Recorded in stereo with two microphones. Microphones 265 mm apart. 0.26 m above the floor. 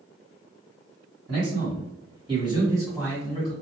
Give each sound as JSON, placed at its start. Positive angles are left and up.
{"t": 1.3, "sound": "a man speaking", "side_deg": -35, "distance_m": 1.9}